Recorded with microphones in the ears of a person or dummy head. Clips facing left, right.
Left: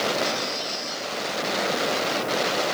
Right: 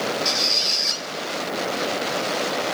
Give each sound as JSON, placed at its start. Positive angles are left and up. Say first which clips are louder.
{"t": 0.2, "sound": "a squeak", "louder": "even", "side_deg": -35, "distance_m": 4.0}